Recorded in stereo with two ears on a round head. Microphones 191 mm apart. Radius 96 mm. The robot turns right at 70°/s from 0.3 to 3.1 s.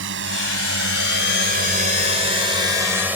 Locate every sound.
0.0 s a drone: 65° right (ahead or behind); by 3.2 s 10° right (ahead or behind)